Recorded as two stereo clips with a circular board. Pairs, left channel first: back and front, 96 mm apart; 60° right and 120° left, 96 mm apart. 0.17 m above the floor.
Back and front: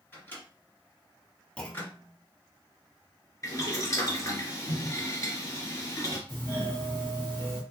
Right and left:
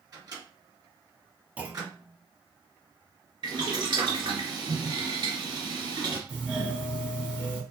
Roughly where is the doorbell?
Behind.